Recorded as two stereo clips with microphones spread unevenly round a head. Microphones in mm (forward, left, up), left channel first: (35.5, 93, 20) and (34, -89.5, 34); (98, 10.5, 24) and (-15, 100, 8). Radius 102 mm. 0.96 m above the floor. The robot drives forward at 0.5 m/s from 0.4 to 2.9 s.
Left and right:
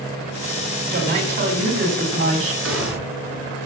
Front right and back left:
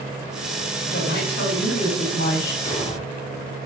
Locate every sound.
0.9 s a woman speaking: 70° right, 8 m; by 2.5 s 75° right, 8 m
2.6 s an explosion: 115° right, 4.5 m